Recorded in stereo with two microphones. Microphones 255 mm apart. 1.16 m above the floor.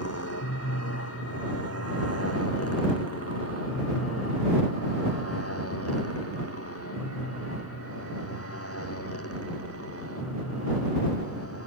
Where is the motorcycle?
85° left; by 11.7 s 70° left (ahead or behind).